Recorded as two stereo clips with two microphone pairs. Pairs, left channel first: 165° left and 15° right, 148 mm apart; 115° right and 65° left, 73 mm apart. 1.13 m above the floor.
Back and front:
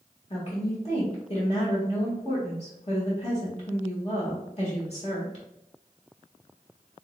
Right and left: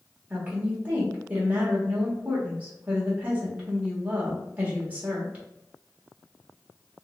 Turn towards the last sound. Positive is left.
turn(degrees=125)